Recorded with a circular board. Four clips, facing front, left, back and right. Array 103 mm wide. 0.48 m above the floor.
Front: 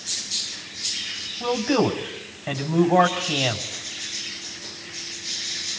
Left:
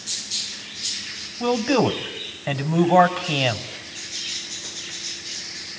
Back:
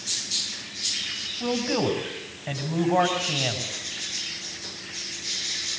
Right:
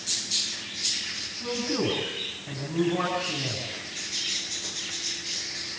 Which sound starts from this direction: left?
A man speaking, at 1.4 s.